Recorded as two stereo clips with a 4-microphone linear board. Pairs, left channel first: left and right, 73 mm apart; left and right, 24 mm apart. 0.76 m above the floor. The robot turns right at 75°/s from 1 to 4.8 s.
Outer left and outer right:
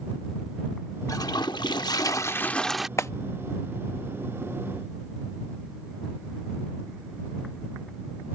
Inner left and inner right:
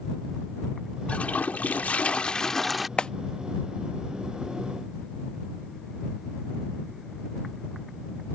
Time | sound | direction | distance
1.1 | a toilet flushing | 55° left | ?
3.0 | a clap | 40° left (ahead or behind) | ?